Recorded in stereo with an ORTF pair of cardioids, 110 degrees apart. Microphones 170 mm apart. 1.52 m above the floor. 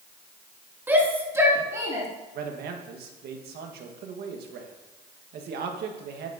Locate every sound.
0.9 s a shout: 10° right, 2.5 m; by 2.1 s 20° right, 3 m
2.4 s a man speaking: 70° right, 1.5 m